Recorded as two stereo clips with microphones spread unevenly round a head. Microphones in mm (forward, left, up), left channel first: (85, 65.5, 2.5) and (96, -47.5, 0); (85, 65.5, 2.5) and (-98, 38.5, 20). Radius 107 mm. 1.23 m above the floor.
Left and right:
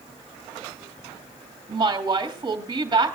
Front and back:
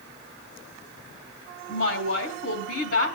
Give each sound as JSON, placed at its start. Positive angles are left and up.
{"t": 1.7, "sound": "a woman speaking", "azimuth_deg": -30, "distance_m": 3.0}